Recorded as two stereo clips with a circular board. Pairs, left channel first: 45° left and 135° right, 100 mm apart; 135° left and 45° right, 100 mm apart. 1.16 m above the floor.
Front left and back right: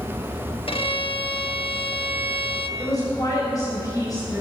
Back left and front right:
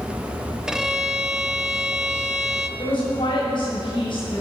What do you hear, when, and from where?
0.7 s a violin: 35° left, 1.0 m
2.8 s a woman speaking: 95° left, 7 m